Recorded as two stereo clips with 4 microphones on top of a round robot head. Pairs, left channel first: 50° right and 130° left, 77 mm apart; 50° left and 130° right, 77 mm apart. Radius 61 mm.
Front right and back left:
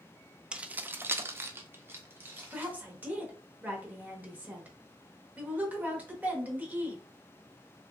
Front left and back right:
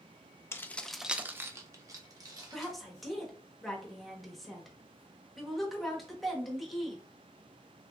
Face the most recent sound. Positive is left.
turn(degrees=140)